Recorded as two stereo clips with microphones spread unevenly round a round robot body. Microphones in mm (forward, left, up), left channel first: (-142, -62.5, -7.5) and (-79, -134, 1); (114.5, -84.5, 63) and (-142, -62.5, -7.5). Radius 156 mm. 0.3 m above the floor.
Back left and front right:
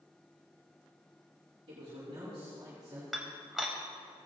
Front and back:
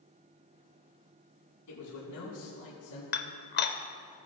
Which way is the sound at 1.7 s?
10° right.